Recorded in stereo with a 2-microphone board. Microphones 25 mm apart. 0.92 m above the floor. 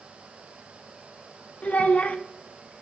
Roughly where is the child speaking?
Left.